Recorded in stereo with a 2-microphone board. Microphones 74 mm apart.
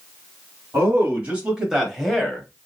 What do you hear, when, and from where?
0.7 s a man speaking: 25° right (ahead or behind), 1.4 m; by 2.5 s 10° left (ahead or behind), 1.3 m